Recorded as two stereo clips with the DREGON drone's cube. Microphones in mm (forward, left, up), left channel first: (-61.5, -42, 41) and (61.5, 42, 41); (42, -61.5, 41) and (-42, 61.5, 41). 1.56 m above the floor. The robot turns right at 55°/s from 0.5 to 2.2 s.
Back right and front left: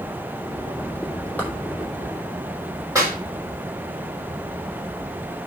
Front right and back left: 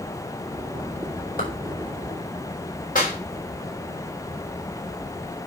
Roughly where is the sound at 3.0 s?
Ahead right.